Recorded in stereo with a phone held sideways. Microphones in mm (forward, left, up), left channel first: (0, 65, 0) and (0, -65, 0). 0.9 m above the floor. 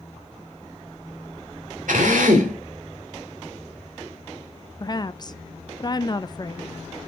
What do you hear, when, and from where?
1.9 s a drill: 85° right, 2 m
4.8 s a woman speaking: 30° left (ahead or behind), 0.6 m